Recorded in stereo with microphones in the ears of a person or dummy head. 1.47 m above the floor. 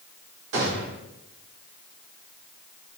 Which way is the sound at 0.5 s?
75° right (ahead or behind).